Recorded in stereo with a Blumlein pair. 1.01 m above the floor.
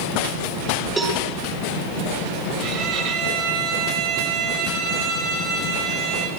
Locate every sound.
1.0 s a cowbell: 15° right, 9 m
2.6 s a violin: 35° right, 5.5 m